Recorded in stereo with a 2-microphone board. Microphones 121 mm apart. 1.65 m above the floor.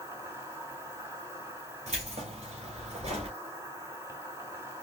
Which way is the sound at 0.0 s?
20° right (ahead or behind).